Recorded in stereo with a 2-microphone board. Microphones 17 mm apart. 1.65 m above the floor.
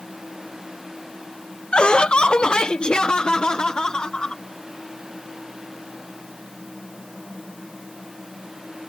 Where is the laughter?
80° left; by 4.4 s 60° left (ahead or behind).